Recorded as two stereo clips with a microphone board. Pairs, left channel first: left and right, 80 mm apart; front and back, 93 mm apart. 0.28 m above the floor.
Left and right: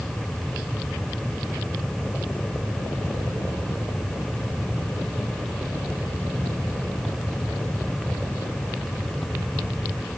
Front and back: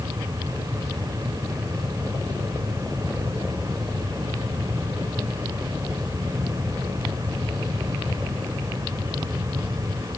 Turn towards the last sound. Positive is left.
No sound to turn to.